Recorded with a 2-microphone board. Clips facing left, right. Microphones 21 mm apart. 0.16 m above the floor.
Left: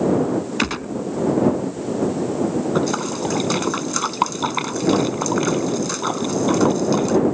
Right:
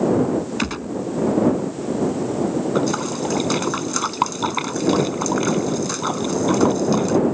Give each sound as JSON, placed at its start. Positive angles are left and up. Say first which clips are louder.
{"t": 0.6, "sound": "a gunshot", "louder": "left 2 dB", "side_deg": 20}
{"t": 2.8, "sound": "a splash", "louder": "even", "side_deg": 5}